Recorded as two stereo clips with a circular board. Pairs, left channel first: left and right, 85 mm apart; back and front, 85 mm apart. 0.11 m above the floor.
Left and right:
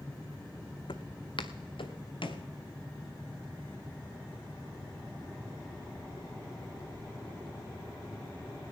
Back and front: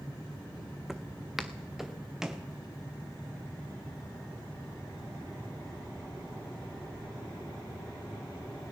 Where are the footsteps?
90° left, 0.6 m; by 2.5 s 85° left, 1.4 m.